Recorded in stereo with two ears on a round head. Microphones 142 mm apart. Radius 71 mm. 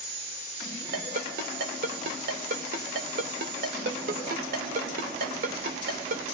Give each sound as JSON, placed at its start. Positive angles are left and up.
{"t": 0.9, "sound": "a ringtone", "side_deg": -60, "distance_m": 2.5}